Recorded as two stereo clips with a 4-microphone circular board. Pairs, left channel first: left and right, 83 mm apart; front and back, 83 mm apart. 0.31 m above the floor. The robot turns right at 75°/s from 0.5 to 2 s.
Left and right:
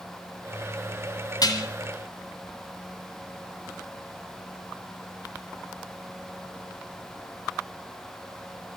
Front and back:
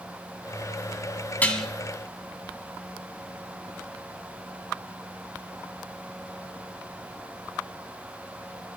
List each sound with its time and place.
1.4 s dishes clattering: 70° left, 1.6 m; by 1.7 s 90° left, 1.6 m